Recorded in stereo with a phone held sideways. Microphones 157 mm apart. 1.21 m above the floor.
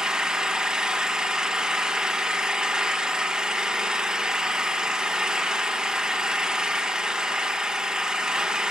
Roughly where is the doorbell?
I don't hear a doorbell.